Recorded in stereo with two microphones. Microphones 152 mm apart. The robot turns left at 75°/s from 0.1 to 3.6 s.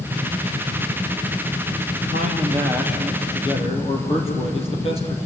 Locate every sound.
2.1 s a man speaking: 110° right, 4.5 m; by 5.3 s 140° left, 4.5 m